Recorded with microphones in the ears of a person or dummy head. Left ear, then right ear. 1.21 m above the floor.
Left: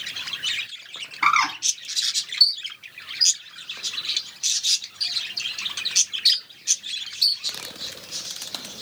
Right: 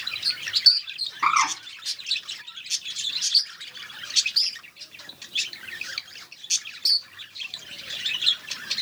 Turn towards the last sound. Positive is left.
turn(degrees=15)  # may be behind; listen again after turning